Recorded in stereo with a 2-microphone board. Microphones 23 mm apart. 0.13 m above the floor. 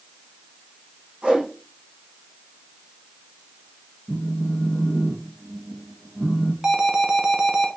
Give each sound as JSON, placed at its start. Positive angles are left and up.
{"t": 1.2, "sound": "a whoosh", "side_deg": -75, "distance_m": 6.5}
{"t": 4.1, "sound": "a phone buzzing", "side_deg": -50, "distance_m": 1.5}
{"t": 6.6, "sound": "an alarm", "side_deg": -30, "distance_m": 1.1}